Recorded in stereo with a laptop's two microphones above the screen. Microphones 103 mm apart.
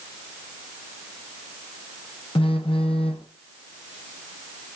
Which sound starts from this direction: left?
A phone buzzing, at 2.4 s.